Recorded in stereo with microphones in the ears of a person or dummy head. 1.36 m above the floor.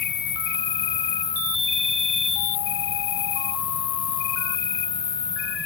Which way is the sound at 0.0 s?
50° left (ahead or behind).